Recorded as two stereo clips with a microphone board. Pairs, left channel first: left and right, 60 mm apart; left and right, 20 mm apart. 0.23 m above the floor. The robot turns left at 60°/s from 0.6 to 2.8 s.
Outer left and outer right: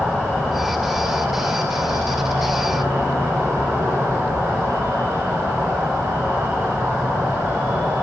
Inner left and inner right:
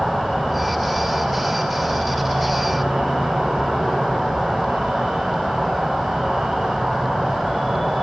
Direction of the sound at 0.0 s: Straight ahead.